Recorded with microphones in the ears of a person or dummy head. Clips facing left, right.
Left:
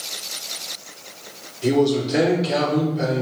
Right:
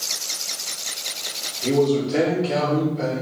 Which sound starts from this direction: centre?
A man speaking, at 1.6 s.